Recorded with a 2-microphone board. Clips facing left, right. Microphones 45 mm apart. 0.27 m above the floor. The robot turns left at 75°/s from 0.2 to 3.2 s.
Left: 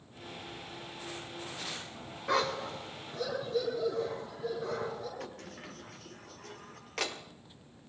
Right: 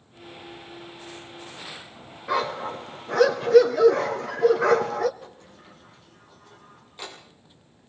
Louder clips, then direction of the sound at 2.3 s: Right 5 dB; 5° right.